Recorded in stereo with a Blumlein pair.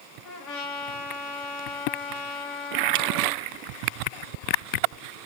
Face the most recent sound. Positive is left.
turn(degrees=35)